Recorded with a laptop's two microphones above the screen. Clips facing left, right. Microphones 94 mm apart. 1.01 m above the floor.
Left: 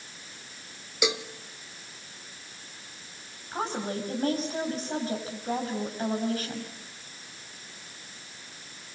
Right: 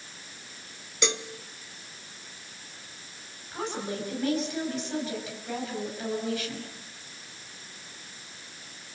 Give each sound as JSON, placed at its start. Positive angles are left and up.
{"t": 1.0, "sound": "a cowbell", "side_deg": 5, "distance_m": 0.9}
{"t": 3.5, "sound": "a woman speaking", "side_deg": 40, "distance_m": 6.5}